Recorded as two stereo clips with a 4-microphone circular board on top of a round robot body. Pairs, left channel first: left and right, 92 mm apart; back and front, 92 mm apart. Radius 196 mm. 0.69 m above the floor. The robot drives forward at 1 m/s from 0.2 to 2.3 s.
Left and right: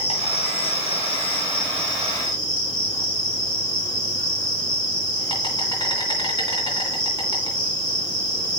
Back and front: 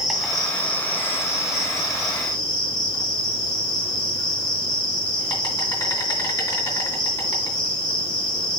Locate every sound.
0.0 s an insect: 90° left, 2 m; by 8.6 s 135° left, 3 m